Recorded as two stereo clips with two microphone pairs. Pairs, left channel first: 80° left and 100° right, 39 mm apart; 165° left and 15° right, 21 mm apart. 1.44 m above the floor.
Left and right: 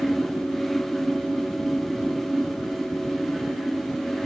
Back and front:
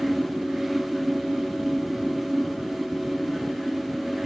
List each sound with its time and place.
Only background noise.